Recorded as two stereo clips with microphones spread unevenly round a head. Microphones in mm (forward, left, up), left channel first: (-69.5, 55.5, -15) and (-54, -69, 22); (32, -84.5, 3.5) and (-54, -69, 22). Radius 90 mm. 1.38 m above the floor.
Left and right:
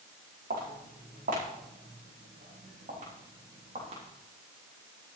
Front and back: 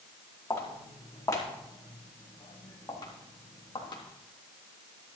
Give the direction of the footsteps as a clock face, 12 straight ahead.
2 o'clock.